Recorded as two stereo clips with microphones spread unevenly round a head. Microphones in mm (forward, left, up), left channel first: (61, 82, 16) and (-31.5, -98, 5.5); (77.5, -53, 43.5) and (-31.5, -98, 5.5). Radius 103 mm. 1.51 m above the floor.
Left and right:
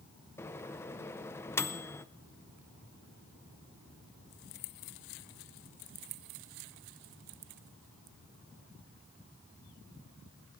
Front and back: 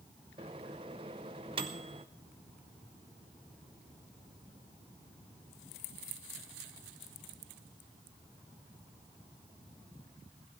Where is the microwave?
135° left, 0.5 m.